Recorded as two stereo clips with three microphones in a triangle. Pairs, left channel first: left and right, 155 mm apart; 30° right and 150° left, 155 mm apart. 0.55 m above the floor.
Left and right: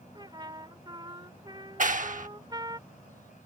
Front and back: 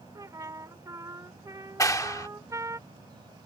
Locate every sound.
0.1 s a trumpet: 145° right
1.8 s a clap: 95° right